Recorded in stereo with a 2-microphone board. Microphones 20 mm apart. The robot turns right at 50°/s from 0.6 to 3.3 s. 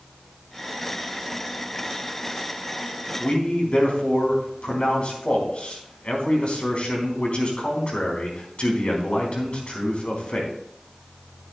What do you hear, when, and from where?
3.2 s a man speaking: 75° left (ahead or behind), 4 m; by 10.5 s 70° left (ahead or behind), 4 m